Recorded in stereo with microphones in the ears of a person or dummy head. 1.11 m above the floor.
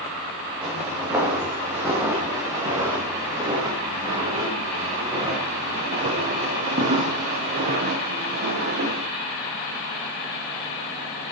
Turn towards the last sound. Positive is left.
turn(degrees=-50)  # may be behind; listen again after turning